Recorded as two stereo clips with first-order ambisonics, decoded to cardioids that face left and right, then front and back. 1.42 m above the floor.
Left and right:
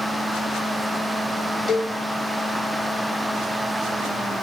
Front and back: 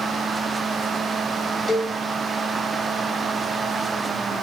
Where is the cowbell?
60° left, 0.8 m.